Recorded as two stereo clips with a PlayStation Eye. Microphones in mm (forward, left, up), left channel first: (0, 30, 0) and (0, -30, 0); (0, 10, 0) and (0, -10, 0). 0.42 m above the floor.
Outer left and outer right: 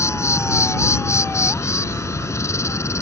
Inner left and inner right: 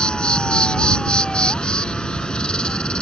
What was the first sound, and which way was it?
An insect, 55° left (ahead or behind).